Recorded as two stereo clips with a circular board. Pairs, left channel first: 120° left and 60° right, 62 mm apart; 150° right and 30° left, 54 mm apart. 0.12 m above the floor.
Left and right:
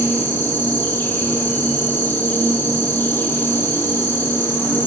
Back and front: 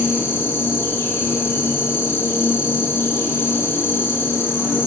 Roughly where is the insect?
Behind.